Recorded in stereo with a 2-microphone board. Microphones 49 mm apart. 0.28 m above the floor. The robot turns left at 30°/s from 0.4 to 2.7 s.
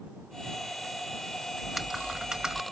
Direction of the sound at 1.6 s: Straight ahead.